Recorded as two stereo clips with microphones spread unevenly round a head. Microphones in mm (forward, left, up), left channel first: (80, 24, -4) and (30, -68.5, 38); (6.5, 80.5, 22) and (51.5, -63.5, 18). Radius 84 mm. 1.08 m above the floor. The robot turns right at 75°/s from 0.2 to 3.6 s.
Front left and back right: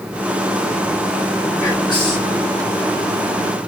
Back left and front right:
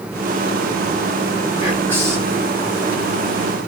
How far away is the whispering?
About 1.5 m.